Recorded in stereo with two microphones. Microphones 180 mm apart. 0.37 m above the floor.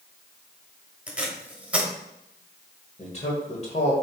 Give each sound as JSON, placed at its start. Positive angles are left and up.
{"t": 1.1, "sound": "tape being pulled", "side_deg": -5, "distance_m": 1.1}
{"t": 3.0, "sound": "a man speaking", "side_deg": 40, "distance_m": 1.4}